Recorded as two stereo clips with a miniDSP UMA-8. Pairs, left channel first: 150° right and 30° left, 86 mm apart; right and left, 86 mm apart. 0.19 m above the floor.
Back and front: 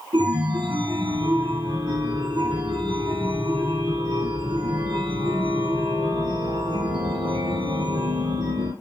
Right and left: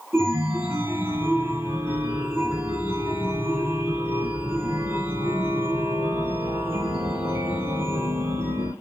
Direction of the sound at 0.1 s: 25° left.